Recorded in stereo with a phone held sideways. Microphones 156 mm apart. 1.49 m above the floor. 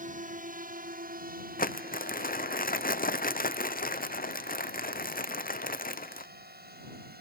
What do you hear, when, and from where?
0.0 s a drone: 60° right (ahead or behind); by 7.2 s 80° right
1.6 s crumpling: 65° left (ahead or behind)